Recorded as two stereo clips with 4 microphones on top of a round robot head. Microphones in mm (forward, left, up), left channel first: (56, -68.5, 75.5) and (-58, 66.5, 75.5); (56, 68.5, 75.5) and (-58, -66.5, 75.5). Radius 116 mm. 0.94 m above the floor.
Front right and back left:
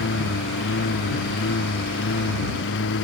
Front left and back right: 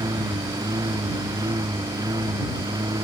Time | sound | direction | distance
0.0 | a lawn mower | 60° right | ?